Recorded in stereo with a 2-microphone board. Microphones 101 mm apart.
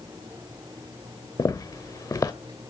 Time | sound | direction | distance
1.4 | footsteps | 30° left (ahead or behind) | 1.0 m